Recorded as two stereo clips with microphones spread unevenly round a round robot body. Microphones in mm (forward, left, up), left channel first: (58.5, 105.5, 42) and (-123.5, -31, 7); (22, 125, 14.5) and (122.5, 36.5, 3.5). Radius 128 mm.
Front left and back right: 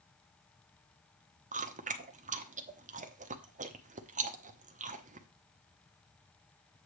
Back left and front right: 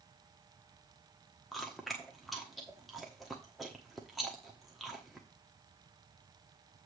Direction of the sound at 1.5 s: 125° right.